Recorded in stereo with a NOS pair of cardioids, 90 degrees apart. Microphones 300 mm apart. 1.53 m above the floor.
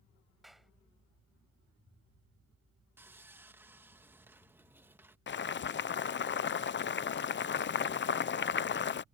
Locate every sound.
0.4 s a clap: straight ahead
3.0 s sawing: 5° right
5.3 s boiling: 40° left